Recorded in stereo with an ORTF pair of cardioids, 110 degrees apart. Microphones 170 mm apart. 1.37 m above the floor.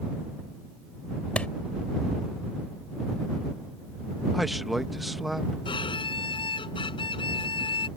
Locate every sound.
1.4 s a clap: 5° left
4.3 s a man speaking: straight ahead
5.7 s a violin: 25° left